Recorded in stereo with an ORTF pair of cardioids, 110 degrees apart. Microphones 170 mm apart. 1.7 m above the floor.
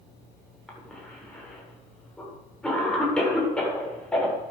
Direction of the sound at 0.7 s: 5° left.